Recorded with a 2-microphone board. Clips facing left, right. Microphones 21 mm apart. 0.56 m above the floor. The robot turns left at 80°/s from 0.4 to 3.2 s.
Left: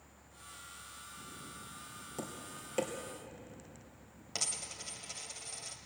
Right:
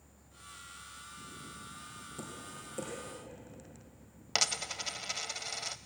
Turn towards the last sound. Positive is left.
turn(degrees=-70)  # may be behind; listen again after turning